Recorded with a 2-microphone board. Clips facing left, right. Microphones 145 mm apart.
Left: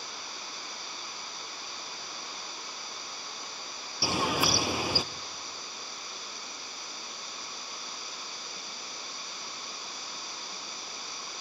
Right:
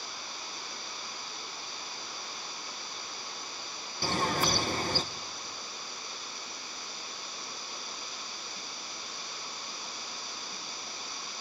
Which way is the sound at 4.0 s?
10° left (ahead or behind).